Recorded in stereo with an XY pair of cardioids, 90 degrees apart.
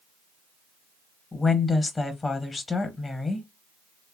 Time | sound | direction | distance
1.3 | a woman speaking | 30° left | 0.8 m